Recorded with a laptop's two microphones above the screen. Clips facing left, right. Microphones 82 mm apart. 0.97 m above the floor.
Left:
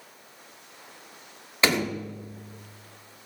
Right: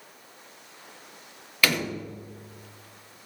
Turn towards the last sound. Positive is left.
turn(degrees=25)  # may be behind; listen again after turning